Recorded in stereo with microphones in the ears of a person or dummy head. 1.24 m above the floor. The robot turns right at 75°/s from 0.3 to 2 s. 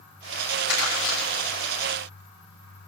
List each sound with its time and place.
0.7 s crumpling: 80° left, 9 m; by 1.2 s 45° left (ahead or behind), 9 m